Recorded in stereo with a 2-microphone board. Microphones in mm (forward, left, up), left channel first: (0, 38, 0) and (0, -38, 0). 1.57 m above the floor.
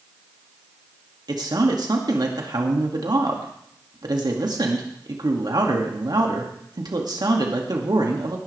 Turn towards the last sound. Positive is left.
turn(degrees=-60)  # may be behind; listen again after turning